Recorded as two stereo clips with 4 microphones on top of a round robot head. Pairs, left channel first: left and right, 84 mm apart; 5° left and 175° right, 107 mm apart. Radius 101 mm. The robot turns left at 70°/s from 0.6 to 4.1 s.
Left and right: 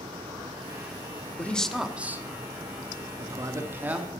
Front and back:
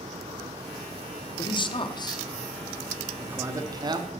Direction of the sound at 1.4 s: 25° left.